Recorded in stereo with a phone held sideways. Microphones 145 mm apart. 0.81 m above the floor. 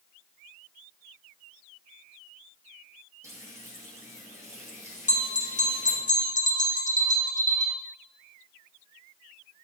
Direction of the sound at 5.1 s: 55° left (ahead or behind).